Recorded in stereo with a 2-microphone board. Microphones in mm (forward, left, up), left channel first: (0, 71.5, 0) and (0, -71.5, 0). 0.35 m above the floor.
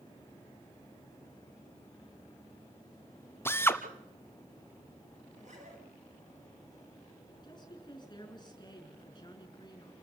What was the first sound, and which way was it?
A drill, 15° left (ahead or behind).